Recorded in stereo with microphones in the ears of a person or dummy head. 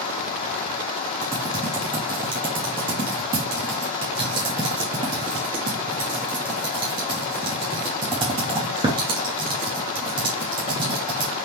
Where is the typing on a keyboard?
15° right (ahead or behind), 0.8 m.